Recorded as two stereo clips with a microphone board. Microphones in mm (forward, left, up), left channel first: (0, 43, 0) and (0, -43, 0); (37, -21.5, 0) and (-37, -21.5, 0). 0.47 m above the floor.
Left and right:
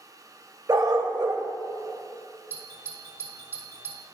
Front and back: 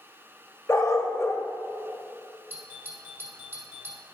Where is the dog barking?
50° right, 0.6 m.